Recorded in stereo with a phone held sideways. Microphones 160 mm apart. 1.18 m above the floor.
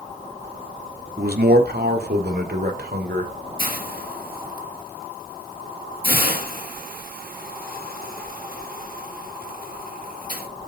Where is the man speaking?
75° right (ahead or behind), 2.5 m; by 3.3 s 85° right, 4 m.